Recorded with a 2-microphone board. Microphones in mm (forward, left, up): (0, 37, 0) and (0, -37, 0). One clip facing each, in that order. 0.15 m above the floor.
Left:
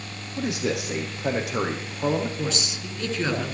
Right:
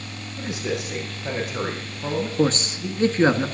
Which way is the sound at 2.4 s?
35° right (ahead or behind).